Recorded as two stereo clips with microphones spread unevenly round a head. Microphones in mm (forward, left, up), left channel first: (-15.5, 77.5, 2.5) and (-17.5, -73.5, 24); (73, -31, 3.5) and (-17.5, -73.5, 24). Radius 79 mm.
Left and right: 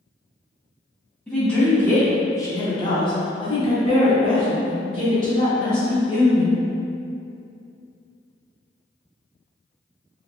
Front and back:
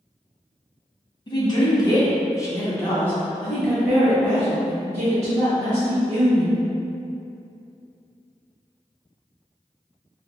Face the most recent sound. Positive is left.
turn(degrees=145)